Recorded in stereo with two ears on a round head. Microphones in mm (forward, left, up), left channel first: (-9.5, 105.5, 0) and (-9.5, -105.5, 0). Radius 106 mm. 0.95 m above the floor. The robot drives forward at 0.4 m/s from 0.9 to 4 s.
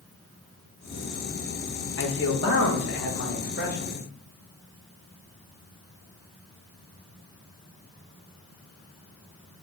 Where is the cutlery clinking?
No cutlery clinking in this recording.